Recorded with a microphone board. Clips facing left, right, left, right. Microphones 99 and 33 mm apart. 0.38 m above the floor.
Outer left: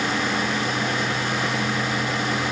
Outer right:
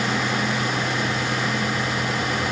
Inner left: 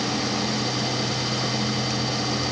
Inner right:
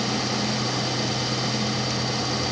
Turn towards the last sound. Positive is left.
No sound to turn to.